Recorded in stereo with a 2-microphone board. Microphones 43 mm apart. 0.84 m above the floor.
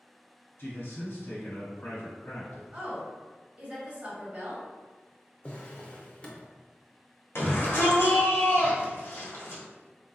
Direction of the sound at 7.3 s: 60° left (ahead or behind).